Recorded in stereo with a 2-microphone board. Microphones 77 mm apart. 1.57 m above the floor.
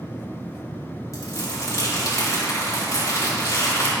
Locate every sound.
1.1 s crumpling: 45° left (ahead or behind), 3 m